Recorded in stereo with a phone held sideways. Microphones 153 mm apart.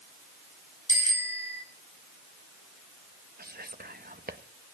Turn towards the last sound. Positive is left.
turn(degrees=-85)